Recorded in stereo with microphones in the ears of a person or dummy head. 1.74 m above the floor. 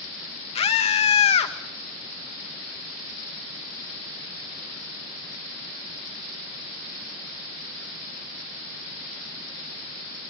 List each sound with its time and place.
0.6 s a scream: 30° left (ahead or behind), 1.7 m